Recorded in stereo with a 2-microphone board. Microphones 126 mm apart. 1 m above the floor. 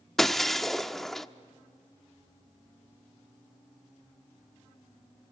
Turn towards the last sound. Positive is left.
turn(degrees=0)  # may be behind; listen again after turning